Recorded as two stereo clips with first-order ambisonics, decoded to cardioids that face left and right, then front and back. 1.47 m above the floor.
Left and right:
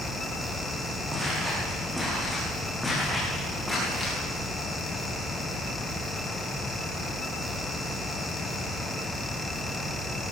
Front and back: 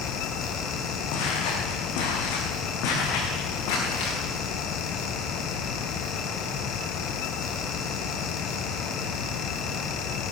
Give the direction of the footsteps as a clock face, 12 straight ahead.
12 o'clock.